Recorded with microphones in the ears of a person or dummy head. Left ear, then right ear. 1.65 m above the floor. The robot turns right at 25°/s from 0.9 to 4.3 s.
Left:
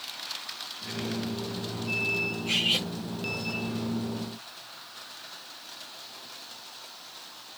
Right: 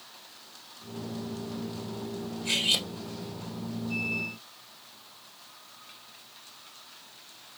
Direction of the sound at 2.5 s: 40° right (ahead or behind).